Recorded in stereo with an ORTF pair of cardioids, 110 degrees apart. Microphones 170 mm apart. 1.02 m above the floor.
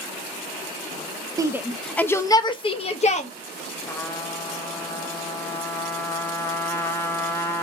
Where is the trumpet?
15° left, 1.1 m.